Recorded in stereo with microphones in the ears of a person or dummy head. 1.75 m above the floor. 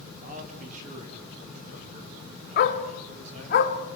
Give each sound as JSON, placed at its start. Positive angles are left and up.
{"t": 0.2, "sound": "a man speaking", "side_deg": -45, "distance_m": 3.5}
{"t": 2.6, "sound": "a dog barking", "side_deg": 50, "distance_m": 1.8}